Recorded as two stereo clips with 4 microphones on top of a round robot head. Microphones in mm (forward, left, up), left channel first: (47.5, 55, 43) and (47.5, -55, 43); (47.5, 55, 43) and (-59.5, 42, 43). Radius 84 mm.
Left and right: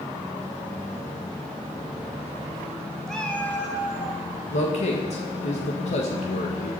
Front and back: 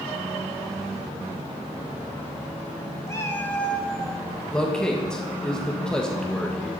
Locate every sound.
3.1 s a cat meowing: 10° left, 0.9 m; by 4.2 s 90° left, 1.0 m
4.5 s a man speaking: 90° left, 1.6 m